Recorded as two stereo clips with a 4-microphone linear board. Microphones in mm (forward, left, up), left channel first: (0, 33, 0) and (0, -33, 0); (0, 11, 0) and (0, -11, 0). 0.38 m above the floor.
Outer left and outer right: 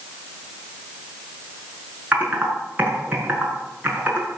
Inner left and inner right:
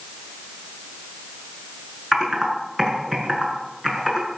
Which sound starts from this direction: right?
Typing on a keyboard, at 2.1 s.